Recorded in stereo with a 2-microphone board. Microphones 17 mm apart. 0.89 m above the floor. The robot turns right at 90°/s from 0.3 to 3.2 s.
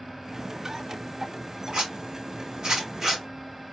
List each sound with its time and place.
1.7 s a zipper: 40° right (ahead or behind), 2.5 m; by 3.2 s 5° right (ahead or behind), 2.5 m